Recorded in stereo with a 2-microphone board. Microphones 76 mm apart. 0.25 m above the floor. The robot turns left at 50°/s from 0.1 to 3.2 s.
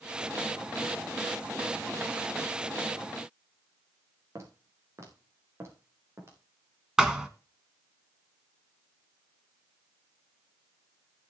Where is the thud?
10° right (ahead or behind), 1.3 m.